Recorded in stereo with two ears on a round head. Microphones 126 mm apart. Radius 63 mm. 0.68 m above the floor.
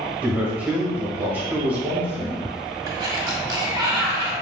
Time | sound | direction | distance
0.2 | a man speaking | 15° right (ahead or behind) | 1.0 m
2.9 | a sliding door | 30° right (ahead or behind) | 0.6 m